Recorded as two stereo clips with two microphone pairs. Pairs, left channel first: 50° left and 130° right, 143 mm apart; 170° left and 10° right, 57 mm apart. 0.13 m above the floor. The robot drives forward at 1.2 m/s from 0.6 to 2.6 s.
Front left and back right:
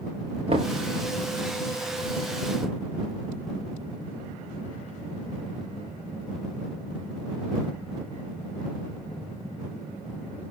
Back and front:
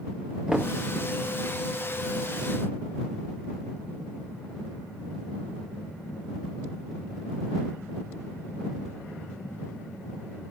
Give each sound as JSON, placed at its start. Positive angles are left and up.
{"t": 0.5, "sound": "knocking", "azimuth_deg": -90, "distance_m": 1.9}